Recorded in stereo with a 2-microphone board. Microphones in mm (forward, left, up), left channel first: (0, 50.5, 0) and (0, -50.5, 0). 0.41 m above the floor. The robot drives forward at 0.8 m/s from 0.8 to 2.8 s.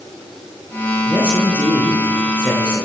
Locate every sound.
1.1 s a man speaking: 10° right (ahead or behind), 7 m; by 2.9 s 5° right (ahead or behind), 8 m